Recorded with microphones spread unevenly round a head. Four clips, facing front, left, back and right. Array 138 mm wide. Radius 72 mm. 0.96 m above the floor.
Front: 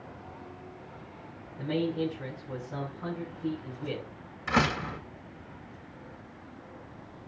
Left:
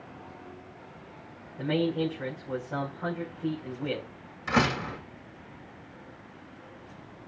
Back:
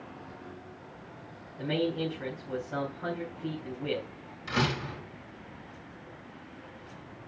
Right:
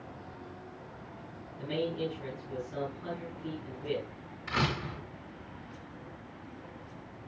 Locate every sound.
1.6 s a man speaking: 95° left, 6.5 m
4.5 s a door slam: 70° left, 3.5 m